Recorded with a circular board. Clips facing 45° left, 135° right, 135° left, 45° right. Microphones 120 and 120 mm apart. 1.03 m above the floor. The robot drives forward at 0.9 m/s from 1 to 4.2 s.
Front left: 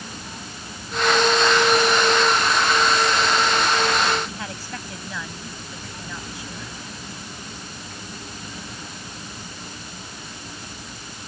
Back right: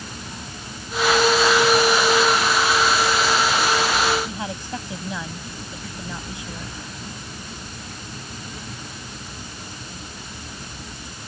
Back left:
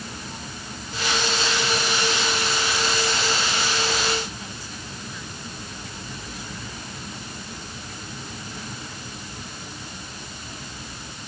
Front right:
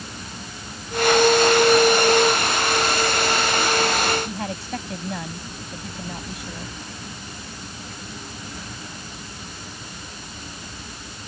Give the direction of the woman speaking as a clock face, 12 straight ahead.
2 o'clock.